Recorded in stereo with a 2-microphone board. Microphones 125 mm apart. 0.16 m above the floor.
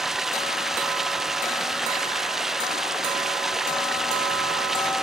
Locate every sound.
0.0 s running water: 5° right (ahead or behind)